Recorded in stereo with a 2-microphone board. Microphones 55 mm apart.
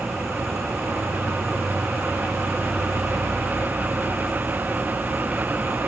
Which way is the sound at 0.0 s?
80° right.